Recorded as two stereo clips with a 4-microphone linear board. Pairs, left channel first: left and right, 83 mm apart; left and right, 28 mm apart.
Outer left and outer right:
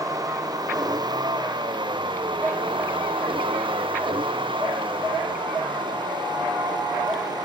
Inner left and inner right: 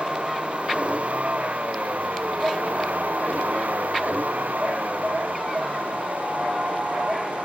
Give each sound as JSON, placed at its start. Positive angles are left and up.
{"t": 0.0, "sound": "a vehicle", "side_deg": -45}